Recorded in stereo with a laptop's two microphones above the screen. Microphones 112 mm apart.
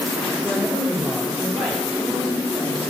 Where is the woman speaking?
5° right (ahead or behind), 5 m.